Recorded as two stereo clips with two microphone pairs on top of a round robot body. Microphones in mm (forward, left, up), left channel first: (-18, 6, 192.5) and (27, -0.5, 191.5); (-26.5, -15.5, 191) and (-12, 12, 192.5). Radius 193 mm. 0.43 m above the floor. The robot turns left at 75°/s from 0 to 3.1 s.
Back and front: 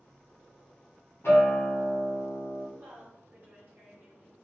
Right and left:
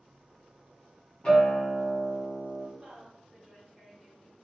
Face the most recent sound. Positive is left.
turn(degrees=-20)